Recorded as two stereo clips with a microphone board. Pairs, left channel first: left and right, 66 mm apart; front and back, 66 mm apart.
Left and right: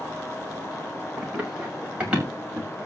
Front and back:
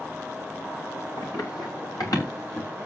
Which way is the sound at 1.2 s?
15° right.